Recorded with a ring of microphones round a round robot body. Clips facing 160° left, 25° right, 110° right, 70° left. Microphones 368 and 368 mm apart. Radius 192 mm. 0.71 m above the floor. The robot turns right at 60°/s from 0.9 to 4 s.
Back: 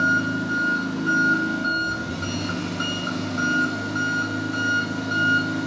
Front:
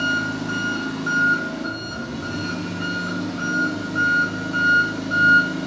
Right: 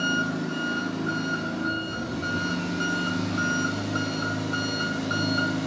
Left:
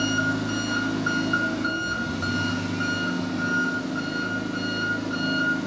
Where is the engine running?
50° left, 4.5 m; by 5.7 s 120° right, 4.5 m.